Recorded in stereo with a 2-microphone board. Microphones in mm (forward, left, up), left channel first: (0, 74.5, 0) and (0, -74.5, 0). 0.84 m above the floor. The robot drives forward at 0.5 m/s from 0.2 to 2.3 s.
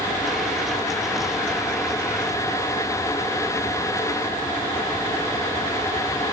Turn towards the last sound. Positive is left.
No sound to turn to.